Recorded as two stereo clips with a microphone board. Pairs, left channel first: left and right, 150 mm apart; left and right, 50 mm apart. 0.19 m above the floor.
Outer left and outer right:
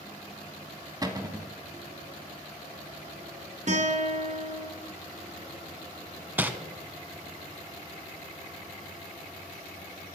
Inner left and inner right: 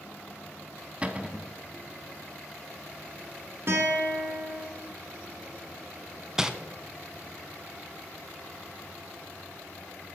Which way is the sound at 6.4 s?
10° right (ahead or behind).